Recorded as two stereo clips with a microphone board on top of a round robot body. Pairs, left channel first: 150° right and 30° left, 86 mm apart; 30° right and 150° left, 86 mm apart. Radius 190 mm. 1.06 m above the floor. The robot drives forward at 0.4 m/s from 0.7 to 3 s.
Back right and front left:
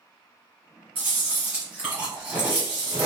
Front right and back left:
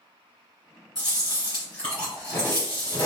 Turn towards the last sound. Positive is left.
turn(degrees=35)